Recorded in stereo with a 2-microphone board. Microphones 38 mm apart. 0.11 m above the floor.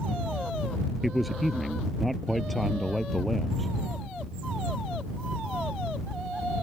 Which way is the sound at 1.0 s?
Centre (ahead or behind).